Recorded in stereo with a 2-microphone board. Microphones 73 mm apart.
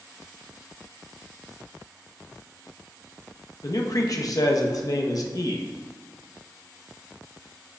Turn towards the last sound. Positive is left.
turn(degrees=50)  # may be behind; listen again after turning